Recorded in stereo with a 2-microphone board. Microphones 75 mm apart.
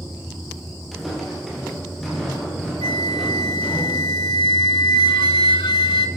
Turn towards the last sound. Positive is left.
turn(degrees=85)